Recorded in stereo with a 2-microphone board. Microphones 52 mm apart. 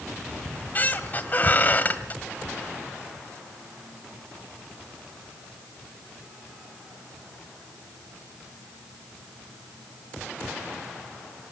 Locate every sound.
0.5 s a squeak: 35° left (ahead or behind), 1.6 m